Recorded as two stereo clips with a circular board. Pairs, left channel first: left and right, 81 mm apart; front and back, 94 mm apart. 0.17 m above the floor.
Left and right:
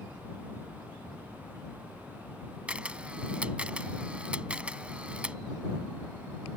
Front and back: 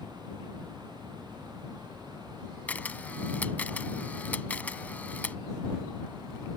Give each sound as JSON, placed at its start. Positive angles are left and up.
{"t": 2.7, "sound": "a camera shutter", "azimuth_deg": -40}